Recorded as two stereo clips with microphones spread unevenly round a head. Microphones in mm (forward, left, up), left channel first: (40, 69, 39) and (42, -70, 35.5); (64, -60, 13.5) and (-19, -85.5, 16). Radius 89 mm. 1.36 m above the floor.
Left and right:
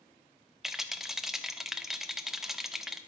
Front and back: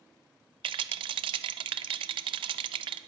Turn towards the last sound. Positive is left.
turn(degrees=-175)